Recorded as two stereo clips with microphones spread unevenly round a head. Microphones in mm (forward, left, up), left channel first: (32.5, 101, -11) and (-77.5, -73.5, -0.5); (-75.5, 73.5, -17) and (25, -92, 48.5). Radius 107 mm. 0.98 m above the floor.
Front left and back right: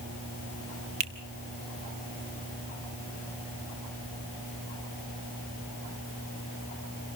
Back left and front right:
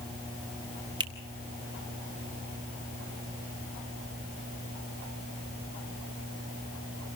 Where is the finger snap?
130° right, 2.5 m.